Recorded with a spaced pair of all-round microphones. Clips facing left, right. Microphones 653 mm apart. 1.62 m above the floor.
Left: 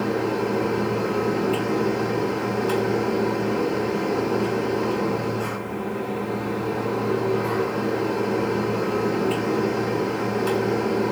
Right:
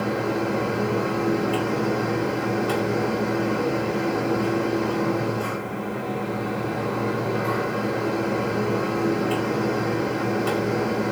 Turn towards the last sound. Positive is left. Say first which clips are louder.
# left 1 dB
turn(degrees=25)  # may be behind; listen again after turning